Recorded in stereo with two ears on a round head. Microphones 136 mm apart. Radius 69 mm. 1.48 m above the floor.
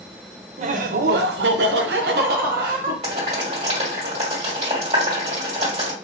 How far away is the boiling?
About 1.7 m.